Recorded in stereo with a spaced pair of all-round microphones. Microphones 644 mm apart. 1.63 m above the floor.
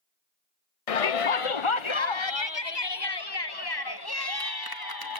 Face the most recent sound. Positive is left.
turn(degrees=35)  # may be behind; listen again after turning